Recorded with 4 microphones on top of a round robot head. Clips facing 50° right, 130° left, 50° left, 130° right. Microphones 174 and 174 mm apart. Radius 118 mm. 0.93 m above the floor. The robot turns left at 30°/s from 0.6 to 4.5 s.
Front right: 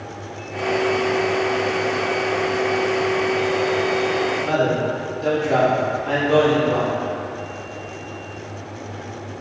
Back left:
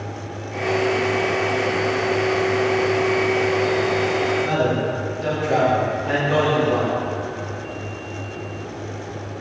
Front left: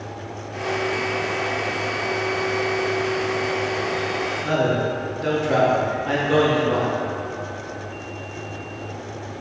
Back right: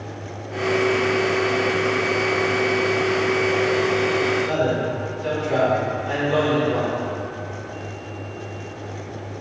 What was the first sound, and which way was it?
A man speaking, 45° left.